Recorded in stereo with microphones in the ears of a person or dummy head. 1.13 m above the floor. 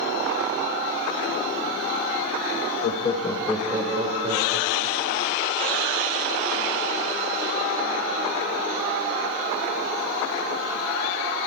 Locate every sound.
2.8 s laughter: 40° left (ahead or behind), 1.1 m; by 5.3 s 45° right (ahead or behind), 2.5 m